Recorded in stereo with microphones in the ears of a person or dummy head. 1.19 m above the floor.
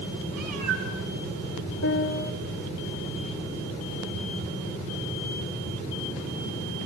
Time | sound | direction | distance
0.3 | a cat meowing | 55° right (ahead or behind) | 4.5 m
1.8 | a piano | 60° left (ahead or behind) | 1.0 m